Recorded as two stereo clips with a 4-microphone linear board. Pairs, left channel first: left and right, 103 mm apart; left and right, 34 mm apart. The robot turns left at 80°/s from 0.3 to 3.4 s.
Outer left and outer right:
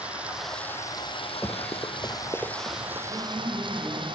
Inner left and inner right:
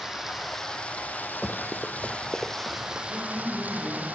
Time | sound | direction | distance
0.0 | running water | 170° right | 3 m
1.4 | running footsteps | 20° left (ahead or behind) | 1.6 m
3.1 | a man speaking | 35° left (ahead or behind) | 5 m